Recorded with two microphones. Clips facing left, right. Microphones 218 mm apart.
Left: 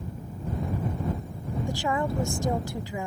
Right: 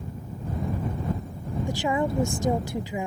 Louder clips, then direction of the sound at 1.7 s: Right 3 dB; 20° right (ahead or behind).